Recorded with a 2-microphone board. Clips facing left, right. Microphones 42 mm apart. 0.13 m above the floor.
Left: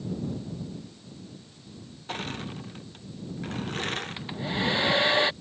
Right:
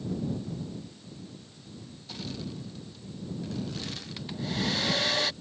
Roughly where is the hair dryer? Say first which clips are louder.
Left 3 dB; left.